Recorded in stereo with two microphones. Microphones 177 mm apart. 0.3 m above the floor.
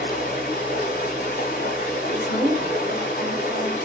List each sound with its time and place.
0.0 s running water: 65° left (ahead or behind), 1.2 m
2.1 s a woman speaking: 15° right (ahead or behind), 1.2 m